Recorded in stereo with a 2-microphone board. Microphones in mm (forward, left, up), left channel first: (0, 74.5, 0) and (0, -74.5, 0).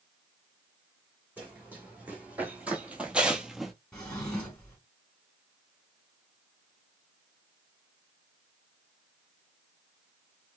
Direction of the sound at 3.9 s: 5° left (ahead or behind).